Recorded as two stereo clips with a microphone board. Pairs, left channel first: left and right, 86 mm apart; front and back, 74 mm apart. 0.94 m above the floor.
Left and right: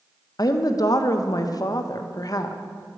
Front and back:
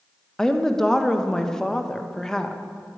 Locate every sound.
0.4 s a woman speaking: 80° left, 0.5 m